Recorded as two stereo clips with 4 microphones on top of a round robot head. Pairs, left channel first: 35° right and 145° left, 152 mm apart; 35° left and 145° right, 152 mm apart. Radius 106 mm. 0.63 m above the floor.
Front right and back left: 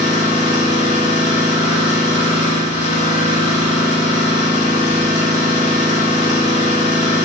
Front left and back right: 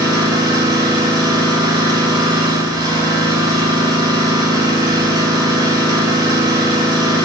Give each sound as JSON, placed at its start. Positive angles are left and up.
{"t": 0.0, "sound": "an engine running", "azimuth_deg": -80, "distance_m": 5.0}